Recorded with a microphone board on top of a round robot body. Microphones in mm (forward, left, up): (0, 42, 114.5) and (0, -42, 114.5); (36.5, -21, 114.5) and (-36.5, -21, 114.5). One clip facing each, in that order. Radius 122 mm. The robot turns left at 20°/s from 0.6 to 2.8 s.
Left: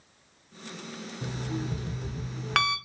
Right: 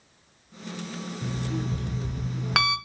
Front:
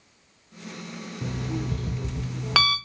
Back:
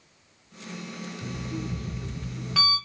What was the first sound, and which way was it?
An alarm clock, 20° left.